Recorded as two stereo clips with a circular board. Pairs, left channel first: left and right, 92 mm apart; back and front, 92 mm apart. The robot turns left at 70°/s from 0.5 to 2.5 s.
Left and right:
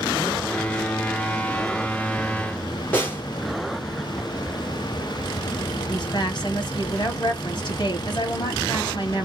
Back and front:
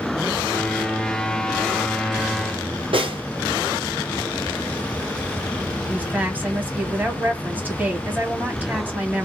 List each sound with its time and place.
2.9 s a snare drum: 20° left, 2 m
5.9 s a woman speaking: 70° left, 2 m